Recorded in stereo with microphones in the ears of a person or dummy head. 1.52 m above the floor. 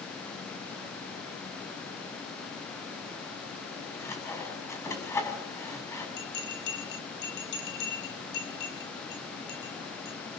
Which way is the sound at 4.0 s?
20° left (ahead or behind).